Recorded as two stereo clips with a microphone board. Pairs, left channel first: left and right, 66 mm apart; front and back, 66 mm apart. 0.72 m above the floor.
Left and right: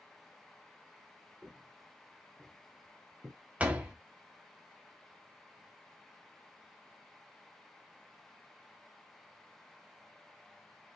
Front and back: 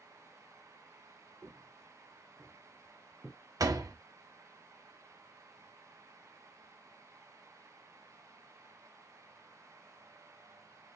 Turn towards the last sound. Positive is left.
turn(degrees=-160)